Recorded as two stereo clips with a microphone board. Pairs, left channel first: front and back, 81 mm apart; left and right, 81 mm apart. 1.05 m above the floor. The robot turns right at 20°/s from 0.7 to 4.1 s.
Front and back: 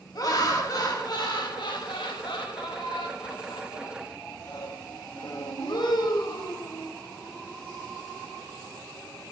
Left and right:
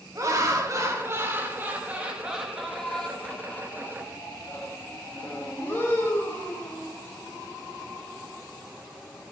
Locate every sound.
0.1 s laughter: 40° right, 1.3 m; by 6.9 s 30° left, 1.3 m